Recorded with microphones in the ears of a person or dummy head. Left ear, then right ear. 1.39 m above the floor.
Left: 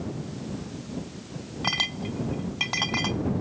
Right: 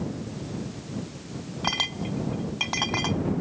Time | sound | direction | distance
1.6 | a clink | 15° right (ahead or behind) | ?